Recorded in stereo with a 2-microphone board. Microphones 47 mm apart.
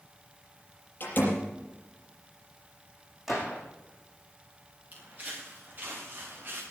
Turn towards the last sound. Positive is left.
turn(degrees=-50)  # may be behind; listen again after turning